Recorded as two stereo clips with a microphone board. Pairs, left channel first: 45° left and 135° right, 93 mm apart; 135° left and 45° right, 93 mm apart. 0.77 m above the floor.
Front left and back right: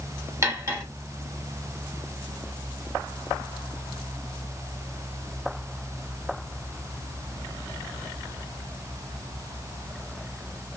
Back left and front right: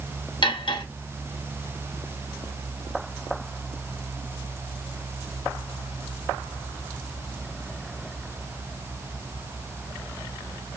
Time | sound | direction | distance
0.4 | cutlery clinking | 170° left | 1.0 m